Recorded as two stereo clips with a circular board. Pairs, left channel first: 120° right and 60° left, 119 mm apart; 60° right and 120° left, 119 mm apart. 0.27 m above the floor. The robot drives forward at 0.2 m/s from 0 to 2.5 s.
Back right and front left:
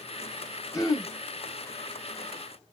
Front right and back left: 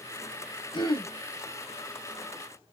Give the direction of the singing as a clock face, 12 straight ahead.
No singing in this recording.